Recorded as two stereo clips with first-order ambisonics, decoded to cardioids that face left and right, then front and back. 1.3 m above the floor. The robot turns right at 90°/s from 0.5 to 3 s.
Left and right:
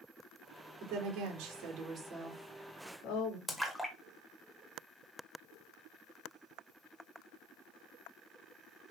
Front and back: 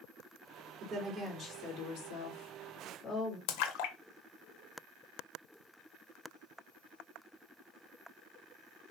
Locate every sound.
0.8 s a woman speaking: 135° right, 3 m; by 3.4 s 65° left, 3 m
3.5 s a splash: straight ahead, 1.2 m